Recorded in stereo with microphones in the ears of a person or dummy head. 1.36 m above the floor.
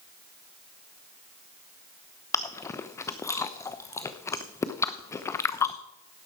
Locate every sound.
2.3 s chewing: 20° left (ahead or behind), 0.7 m